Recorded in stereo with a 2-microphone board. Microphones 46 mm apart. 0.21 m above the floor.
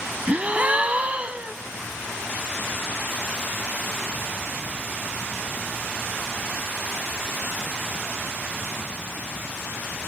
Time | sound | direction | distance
0.3 | a gasp | 30° right (ahead or behind) | 0.5 m